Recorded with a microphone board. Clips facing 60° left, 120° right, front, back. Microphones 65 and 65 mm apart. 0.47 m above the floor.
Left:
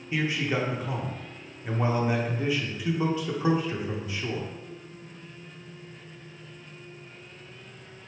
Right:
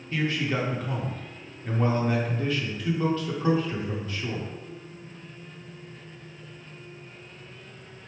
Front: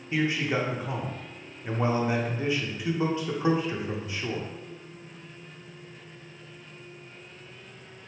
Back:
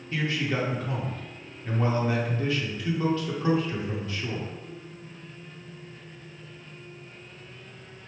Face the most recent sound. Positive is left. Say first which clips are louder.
# even, front 2 dB
turn(degrees=15)